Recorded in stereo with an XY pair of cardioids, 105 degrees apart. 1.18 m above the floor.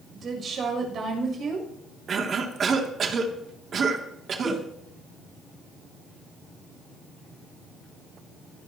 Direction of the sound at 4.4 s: 40° right.